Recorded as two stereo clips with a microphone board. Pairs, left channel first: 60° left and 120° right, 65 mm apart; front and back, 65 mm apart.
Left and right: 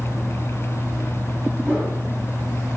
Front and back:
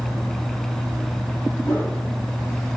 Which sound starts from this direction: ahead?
A whoosh, at 1.6 s.